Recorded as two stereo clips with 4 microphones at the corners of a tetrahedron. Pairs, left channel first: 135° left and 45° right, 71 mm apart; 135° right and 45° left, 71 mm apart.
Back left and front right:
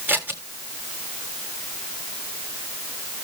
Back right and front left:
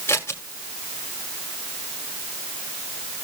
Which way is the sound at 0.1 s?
95° right.